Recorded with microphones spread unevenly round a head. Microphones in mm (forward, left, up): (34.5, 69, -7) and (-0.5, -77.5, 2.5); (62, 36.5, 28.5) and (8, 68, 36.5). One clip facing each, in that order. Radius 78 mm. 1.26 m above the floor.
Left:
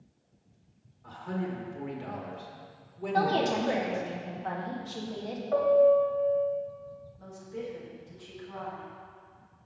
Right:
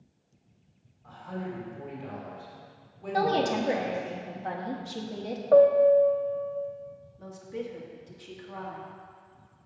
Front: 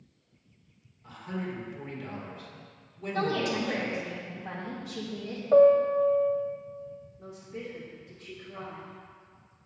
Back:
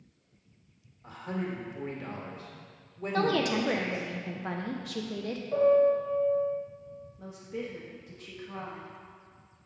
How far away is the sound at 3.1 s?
About 1.0 m.